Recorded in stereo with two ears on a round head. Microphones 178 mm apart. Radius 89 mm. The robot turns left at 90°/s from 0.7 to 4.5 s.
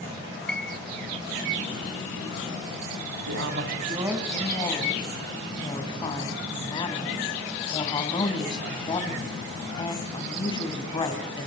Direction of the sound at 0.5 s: 5° left (ahead or behind).